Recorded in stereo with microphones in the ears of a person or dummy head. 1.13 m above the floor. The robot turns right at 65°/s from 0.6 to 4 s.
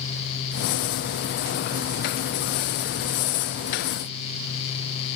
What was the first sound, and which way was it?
Only background noise.